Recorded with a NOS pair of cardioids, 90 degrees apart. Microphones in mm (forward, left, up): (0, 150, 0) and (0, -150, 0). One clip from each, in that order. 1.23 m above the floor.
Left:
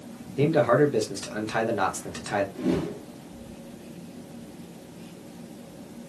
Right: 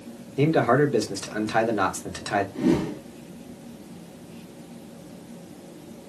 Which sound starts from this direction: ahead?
A man speaking, at 0.4 s.